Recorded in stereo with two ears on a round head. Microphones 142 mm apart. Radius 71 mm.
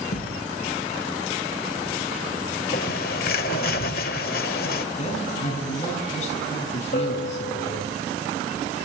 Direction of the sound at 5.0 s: 45° left (ahead or behind).